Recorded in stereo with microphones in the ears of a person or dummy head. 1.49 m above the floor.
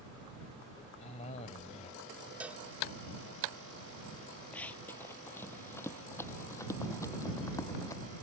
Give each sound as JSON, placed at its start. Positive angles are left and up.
{"t": 1.0, "sound": "a cough", "side_deg": 35}
{"t": 2.4, "sound": "a cowbell", "side_deg": -10}
{"t": 4.5, "sound": "running footsteps", "side_deg": 5}